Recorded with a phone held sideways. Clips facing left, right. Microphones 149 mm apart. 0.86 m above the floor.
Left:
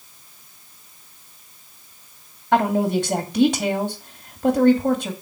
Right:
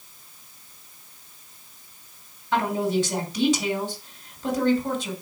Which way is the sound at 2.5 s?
60° left (ahead or behind).